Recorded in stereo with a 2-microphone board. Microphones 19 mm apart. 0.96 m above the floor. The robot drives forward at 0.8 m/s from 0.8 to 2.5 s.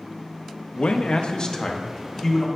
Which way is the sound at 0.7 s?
75° left (ahead or behind).